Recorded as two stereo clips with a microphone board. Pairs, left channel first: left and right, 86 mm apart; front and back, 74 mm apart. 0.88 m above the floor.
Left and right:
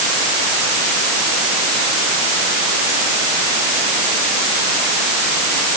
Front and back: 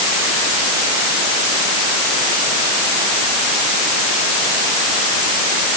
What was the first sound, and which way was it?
Only background noise.